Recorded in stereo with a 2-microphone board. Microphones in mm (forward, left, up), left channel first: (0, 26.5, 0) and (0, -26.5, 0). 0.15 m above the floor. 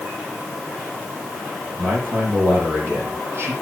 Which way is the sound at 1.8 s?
55° right (ahead or behind).